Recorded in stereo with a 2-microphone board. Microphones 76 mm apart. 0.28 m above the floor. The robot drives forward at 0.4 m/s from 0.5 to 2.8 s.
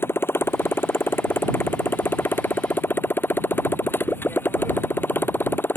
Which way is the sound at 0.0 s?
30° left (ahead or behind).